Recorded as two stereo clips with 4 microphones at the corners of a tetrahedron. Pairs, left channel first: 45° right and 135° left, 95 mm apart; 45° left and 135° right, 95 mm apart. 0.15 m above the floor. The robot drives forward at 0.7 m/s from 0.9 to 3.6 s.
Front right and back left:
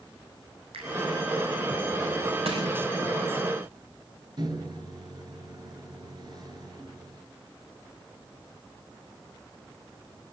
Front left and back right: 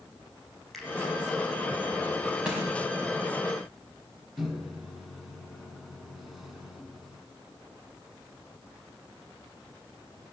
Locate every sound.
0.7 s a finger snap: 135° left, 3.5 m
2.5 s crushing: 145° left, 3 m
4.4 s a microwave: 140° left, 1.2 m